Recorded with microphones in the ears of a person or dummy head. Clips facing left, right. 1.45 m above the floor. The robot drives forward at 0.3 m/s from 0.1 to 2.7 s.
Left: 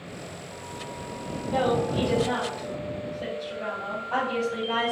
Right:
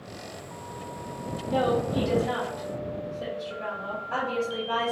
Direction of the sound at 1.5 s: 30° right (ahead or behind).